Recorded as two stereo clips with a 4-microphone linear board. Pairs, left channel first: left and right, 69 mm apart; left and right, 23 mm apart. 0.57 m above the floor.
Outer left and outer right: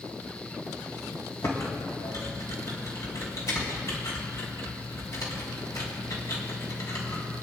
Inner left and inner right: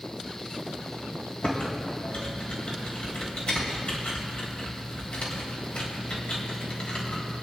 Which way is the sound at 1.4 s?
55° left (ahead or behind).